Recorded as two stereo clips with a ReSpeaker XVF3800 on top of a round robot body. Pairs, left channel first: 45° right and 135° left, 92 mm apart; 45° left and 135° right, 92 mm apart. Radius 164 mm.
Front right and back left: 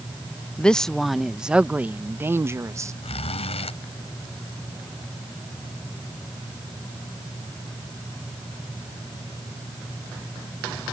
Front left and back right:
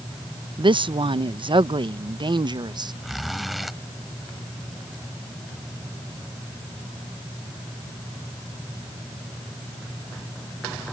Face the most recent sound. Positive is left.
turn(degrees=-45)